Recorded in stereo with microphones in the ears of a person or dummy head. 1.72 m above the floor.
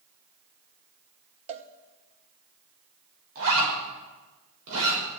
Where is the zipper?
80° right, 5.5 m.